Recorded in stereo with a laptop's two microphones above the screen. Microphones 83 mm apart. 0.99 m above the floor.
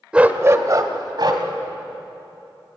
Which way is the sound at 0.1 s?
10° right (ahead or behind).